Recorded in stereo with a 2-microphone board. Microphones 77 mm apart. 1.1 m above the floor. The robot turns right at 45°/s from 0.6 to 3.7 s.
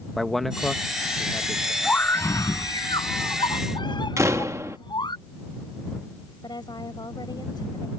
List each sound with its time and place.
0.2 s a man speaking: straight ahead; by 1.7 s 55° left
1.8 s a scream: 20° left; by 5.2 s 100° left
4.2 s a door slam: 40° right (ahead or behind)
6.4 s a woman speaking: 65° left (ahead or behind)